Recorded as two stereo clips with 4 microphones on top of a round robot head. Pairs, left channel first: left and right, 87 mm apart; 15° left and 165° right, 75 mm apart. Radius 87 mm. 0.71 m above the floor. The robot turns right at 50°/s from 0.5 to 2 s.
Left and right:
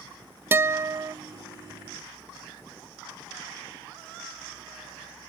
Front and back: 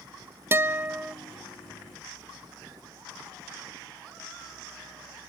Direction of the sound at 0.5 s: 135° right.